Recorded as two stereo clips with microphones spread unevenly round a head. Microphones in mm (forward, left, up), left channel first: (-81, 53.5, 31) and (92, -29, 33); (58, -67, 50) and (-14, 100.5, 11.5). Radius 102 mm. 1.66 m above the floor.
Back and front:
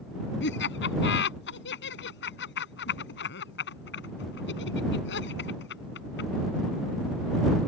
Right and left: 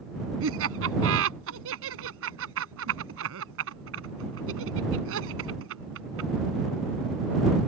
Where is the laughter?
125° left.